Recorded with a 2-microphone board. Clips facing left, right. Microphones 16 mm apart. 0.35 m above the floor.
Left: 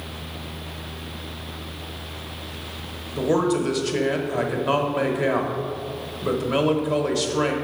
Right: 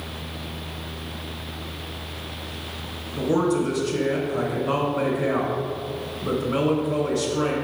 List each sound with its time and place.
3.2 s a man speaking: 35° left (ahead or behind), 1.1 m